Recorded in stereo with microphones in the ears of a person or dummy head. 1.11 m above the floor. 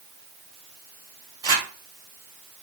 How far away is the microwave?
I don't hear a microwave.